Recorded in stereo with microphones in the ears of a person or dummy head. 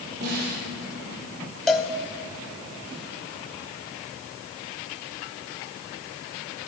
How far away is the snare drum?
About 3.5 m.